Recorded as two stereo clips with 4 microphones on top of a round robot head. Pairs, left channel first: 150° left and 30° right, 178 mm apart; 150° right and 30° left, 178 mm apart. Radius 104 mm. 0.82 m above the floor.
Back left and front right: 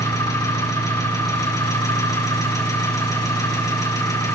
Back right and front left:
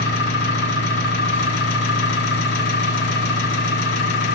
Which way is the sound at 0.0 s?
140° right.